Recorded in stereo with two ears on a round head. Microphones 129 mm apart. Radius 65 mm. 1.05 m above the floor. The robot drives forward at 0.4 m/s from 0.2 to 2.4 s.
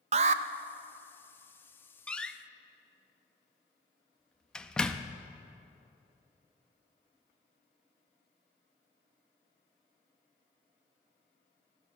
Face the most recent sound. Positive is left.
turn(degrees=5)  # may be behind; listen again after turning